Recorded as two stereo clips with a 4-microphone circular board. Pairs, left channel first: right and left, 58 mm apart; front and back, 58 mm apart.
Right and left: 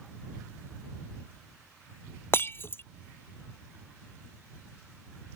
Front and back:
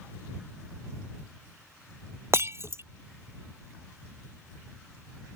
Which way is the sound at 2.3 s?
140° right.